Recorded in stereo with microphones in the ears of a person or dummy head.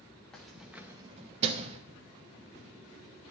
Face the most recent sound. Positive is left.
turn(degrees=-40)  # may be behind; listen again after turning